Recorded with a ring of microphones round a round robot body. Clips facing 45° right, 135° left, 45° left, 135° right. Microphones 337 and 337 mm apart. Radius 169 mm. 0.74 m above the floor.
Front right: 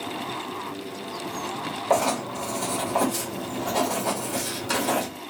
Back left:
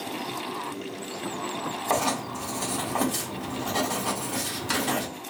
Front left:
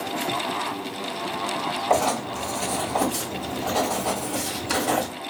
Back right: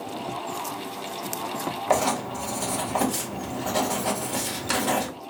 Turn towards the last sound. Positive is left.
turn(degrees=-155)